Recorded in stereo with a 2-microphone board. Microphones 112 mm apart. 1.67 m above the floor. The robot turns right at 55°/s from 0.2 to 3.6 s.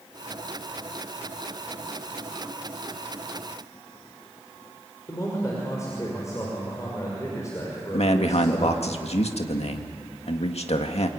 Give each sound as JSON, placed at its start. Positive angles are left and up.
{"t": 5.1, "sound": "a man speaking", "side_deg": 25, "distance_m": 6.0}
{"t": 7.9, "sound": "a man speaking", "side_deg": 70, "distance_m": 2.0}